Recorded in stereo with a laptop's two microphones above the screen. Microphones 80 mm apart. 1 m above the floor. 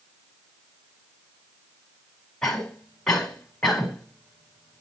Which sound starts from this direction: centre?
A cough, at 2.4 s.